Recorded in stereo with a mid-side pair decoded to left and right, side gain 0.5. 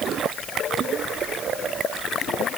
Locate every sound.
Only background noise.